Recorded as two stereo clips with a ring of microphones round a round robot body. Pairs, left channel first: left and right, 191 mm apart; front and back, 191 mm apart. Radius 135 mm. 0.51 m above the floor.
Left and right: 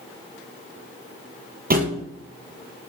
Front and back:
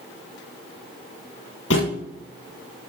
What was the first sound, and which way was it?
A thud, 50° right.